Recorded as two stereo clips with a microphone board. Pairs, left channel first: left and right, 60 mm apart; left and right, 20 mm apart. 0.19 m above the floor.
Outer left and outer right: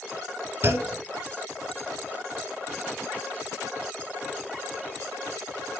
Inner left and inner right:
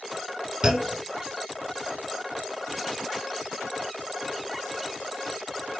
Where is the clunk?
35° right (ahead or behind), 2.5 m.